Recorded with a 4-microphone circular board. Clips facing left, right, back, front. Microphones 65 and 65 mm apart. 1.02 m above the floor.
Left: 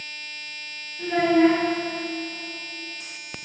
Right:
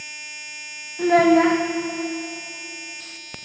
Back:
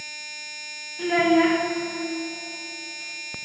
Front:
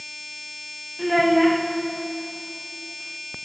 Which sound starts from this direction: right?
A child speaking, at 1.0 s.